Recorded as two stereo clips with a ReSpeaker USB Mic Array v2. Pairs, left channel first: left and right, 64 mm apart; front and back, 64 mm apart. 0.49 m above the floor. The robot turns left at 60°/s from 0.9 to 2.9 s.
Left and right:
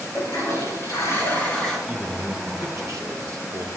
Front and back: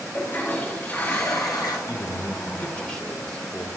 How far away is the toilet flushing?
About 3 m.